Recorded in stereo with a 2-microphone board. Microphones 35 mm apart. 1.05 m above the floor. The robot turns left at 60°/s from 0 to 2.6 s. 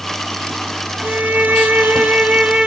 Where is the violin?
40° right, 0.6 m; by 2.7 s 135° right, 0.6 m.